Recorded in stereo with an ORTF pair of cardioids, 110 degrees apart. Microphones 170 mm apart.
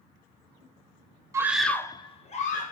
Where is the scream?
20° right, 0.8 m; by 2.7 s 55° left, 1.3 m.